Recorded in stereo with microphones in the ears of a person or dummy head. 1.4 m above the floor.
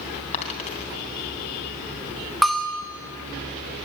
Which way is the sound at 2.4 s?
Centre (ahead or behind).